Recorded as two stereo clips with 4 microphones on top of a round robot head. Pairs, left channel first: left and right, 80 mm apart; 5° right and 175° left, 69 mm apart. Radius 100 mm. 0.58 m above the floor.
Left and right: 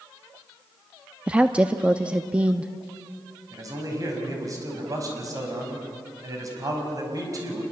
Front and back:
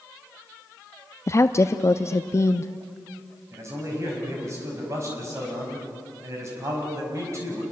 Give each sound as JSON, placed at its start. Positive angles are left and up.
{"t": 1.3, "sound": "a woman speaking", "azimuth_deg": -20, "distance_m": 0.7}
{"t": 3.5, "sound": "a man speaking", "azimuth_deg": -135, "distance_m": 5.5}